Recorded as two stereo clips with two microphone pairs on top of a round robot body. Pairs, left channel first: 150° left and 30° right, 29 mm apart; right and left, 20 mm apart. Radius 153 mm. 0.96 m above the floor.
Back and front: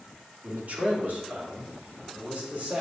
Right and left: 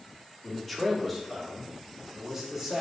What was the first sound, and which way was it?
A man speaking, 15° right.